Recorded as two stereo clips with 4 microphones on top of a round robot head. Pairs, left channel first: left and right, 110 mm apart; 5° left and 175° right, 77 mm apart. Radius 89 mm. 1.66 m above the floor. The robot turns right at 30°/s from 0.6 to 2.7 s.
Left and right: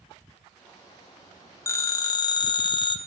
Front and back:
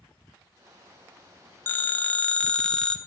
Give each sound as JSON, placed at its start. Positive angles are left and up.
{"t": 1.7, "sound": "a phone ringing", "azimuth_deg": 45, "distance_m": 0.7}